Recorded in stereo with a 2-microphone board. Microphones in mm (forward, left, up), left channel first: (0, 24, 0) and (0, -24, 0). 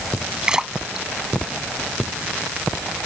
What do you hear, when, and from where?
0.4 s a splash: 15° right (ahead or behind)